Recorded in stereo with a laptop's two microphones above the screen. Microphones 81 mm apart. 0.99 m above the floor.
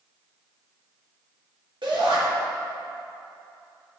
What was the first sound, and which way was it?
A shout, 70° right (ahead or behind).